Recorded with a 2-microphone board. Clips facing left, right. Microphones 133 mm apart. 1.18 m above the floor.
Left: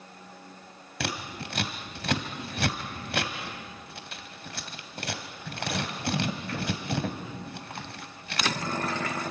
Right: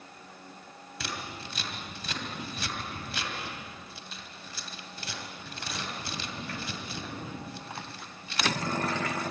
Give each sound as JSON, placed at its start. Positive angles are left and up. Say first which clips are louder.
{"t": 1.0, "sound": "scissors", "louder": "left 5 dB", "side_deg": 65, "distance_m": 2.5}